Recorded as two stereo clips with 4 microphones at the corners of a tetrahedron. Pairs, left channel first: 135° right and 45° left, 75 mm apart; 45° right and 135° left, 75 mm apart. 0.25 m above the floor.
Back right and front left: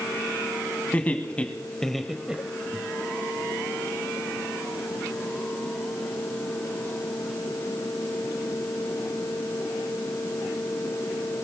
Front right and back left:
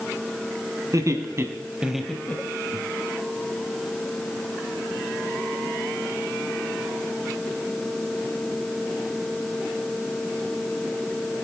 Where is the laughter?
160° left, 1.8 m; by 2.8 s 20° right, 1.4 m.